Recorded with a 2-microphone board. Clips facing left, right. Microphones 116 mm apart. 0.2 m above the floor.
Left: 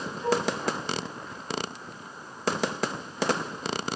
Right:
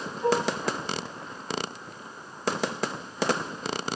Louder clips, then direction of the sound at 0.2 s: Right 2 dB; 10° right (ahead or behind).